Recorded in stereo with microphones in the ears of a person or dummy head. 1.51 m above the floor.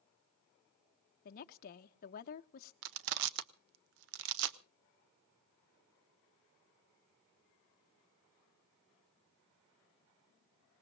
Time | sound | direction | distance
1.2 | a woman speaking | 50° left (ahead or behind) | 0.8 m
2.8 | crushing | 65° right (ahead or behind) | 0.7 m